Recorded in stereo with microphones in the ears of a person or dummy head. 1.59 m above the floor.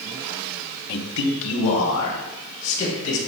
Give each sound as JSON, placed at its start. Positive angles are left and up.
{"t": 0.9, "sound": "a man speaking", "side_deg": 55, "distance_m": 1.0}